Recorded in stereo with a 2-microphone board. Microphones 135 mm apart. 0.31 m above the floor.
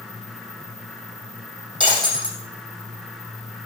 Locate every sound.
1.8 s breaking glass: 40° right (ahead or behind), 5.5 m